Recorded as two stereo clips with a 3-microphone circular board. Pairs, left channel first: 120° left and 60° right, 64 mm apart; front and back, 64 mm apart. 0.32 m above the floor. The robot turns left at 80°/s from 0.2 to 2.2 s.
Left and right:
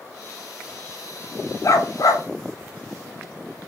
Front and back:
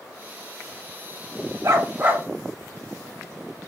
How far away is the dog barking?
About 0.7 m.